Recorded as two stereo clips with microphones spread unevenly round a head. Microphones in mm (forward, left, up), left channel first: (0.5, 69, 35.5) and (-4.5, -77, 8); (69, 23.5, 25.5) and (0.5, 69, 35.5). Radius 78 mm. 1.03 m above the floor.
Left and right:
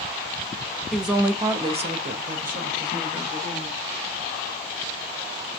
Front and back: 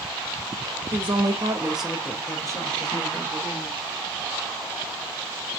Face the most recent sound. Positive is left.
turn(degrees=-55)